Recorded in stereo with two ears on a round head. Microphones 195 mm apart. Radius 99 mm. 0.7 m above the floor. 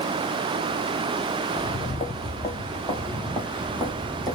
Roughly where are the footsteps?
Left.